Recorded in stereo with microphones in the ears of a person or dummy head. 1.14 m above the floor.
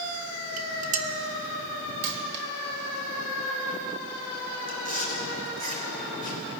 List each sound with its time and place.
0.6 s dishes clattering: 45° right (ahead or behind), 1.1 m
2.0 s a dropped coin: 60° right (ahead or behind), 1.5 m
4.7 s chewing: 35° right (ahead or behind), 2.5 m